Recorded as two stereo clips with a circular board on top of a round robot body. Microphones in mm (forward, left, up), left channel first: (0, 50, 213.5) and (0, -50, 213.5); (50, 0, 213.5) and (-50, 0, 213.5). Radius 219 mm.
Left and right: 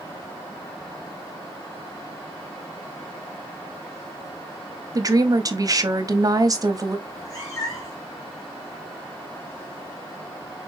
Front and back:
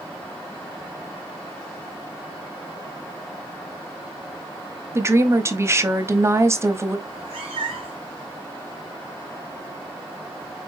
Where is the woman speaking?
125° right, 1.0 m.